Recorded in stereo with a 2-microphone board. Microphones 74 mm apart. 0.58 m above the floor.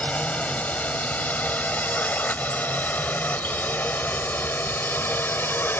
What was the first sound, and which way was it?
A drone, 20° left (ahead or behind).